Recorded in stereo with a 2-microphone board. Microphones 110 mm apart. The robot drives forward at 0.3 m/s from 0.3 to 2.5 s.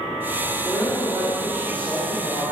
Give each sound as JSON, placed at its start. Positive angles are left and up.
{"t": 0.6, "sound": "a woman speaking", "side_deg": 15, "distance_m": 1.9}